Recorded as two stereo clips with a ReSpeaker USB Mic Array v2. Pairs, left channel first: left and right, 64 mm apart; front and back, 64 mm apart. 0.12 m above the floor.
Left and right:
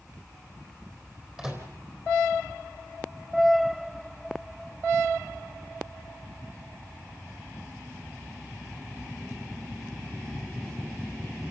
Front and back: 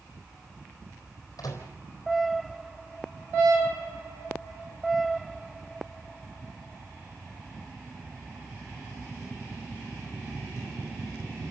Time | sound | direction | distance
1.4 | a microwave | 10° right | 3.5 m